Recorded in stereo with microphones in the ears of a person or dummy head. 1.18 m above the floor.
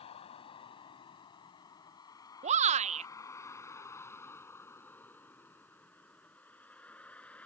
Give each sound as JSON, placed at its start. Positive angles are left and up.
{"t": 0.0, "sound": "a vehicle", "side_deg": 30}
{"t": 2.4, "sound": "a shout", "side_deg": -35}